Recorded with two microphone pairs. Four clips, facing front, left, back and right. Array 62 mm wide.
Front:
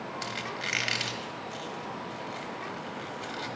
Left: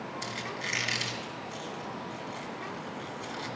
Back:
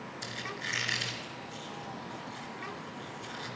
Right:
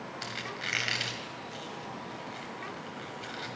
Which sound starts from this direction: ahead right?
A squeak, at 0.2 s.